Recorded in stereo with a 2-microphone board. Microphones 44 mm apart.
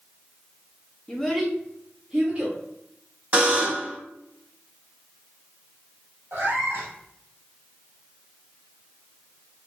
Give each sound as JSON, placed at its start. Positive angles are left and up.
{"t": 1.1, "sound": "a child speaking", "side_deg": 15, "distance_m": 0.7}
{"t": 3.3, "sound": "a buzzer", "side_deg": -40, "distance_m": 1.3}
{"t": 6.3, "sound": "a cat meowing", "side_deg": -85, "distance_m": 1.4}